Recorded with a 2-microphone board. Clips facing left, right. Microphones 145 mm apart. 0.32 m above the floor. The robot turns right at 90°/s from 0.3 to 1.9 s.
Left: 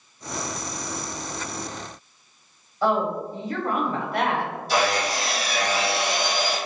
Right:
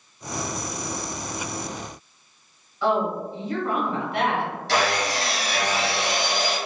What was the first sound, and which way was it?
A woman speaking, 40° left (ahead or behind).